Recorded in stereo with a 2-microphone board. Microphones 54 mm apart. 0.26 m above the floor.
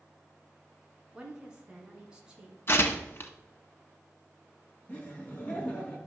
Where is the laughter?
25° left (ahead or behind), 3.5 m.